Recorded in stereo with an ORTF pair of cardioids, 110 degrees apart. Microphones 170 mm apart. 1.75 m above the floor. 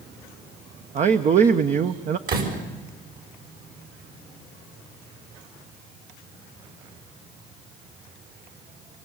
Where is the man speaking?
45° right, 1.3 m.